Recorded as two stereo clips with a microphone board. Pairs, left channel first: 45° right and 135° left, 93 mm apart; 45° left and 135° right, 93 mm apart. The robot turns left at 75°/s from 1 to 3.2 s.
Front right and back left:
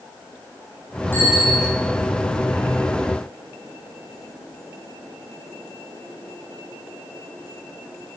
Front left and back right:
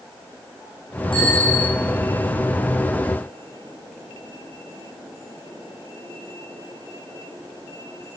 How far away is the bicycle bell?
About 9.5 m.